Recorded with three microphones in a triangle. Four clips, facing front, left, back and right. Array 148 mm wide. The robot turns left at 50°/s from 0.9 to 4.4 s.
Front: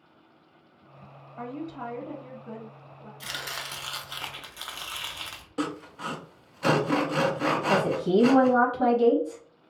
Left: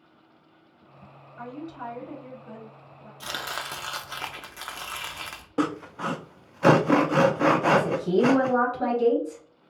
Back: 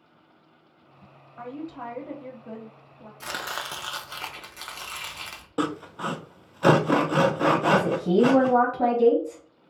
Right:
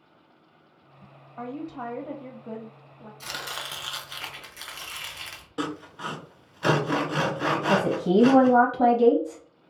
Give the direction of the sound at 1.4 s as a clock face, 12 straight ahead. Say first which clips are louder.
Right 3 dB, even; 2 o'clock.